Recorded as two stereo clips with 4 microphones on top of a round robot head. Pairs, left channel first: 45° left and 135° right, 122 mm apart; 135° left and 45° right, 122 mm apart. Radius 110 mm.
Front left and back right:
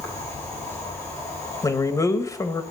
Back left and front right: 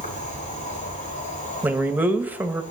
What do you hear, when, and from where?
0.0 s an insect: 110° left, 4.5 m
1.6 s a man speaking: 15° left, 1.2 m